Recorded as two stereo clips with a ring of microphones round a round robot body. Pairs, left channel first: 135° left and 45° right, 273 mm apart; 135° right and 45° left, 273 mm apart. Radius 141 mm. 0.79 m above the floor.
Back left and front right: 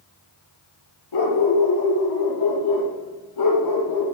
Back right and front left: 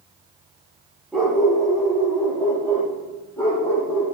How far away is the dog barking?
About 5 m.